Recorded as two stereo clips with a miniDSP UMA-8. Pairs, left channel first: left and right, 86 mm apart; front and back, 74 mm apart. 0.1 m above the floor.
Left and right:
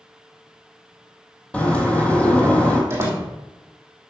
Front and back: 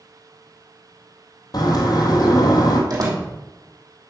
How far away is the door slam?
About 3 m.